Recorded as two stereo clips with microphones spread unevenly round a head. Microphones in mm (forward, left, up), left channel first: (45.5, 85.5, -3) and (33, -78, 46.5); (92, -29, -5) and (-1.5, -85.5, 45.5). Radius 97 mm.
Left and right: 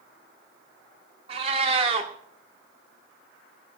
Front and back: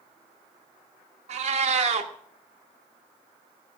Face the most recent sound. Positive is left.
turn(degrees=-150)